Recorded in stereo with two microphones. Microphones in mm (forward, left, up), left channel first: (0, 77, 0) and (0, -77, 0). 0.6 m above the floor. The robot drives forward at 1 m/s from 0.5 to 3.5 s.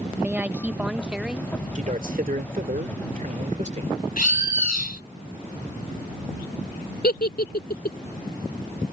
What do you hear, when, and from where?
0.1 s a woman speaking: 10° right (ahead or behind); by 1.5 s 5° right (ahead or behind)
1.8 s a man speaking: 55° right (ahead or behind); by 4.0 s 50° right (ahead or behind)
4.2 s a bird: 65° left (ahead or behind)
7.0 s a giggle: 75° left (ahead or behind)